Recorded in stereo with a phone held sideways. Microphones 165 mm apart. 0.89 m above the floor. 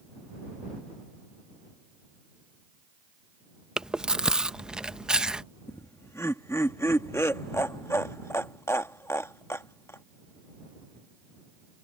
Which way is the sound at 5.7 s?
15° left (ahead or behind).